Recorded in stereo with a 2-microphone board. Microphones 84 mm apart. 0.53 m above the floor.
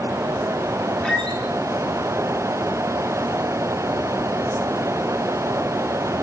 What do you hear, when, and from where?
1.0 s a squeak: 5° left (ahead or behind), 8 m